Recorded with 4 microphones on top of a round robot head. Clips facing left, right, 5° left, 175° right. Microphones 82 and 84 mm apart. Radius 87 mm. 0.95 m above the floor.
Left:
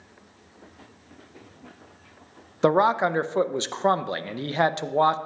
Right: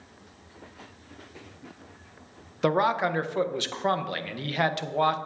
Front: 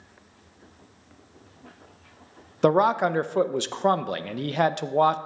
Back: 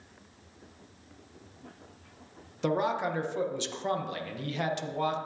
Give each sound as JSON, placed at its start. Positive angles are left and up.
{"t": 2.6, "sound": "a man speaking", "azimuth_deg": 30, "distance_m": 0.5}